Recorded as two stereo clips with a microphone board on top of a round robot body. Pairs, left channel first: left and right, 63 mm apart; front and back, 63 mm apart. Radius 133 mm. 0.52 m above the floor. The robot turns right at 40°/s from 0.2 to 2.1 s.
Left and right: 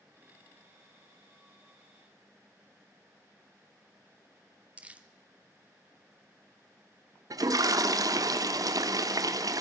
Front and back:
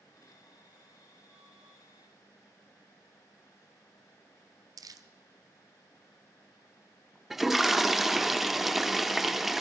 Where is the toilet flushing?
95° right, 1.1 m.